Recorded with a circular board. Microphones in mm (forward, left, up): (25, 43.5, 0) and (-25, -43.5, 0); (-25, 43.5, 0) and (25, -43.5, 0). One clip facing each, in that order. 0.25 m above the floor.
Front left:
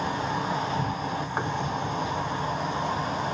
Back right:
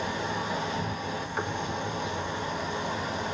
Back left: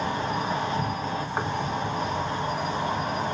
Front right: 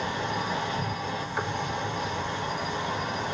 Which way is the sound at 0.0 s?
85° left.